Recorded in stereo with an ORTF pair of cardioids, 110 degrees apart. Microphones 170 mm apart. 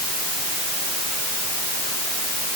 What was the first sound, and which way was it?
Only background noise.